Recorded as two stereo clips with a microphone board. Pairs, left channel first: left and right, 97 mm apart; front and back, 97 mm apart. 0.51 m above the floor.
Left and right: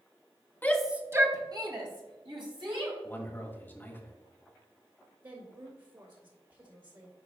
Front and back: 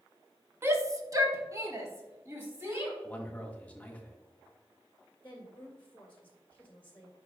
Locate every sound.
0.6 s a shout: 140° left, 0.8 m; by 2.9 s 115° right, 3.5 m
3.0 s a man speaking: 55° left, 1.2 m
5.2 s a woman speaking: 65° right, 1.5 m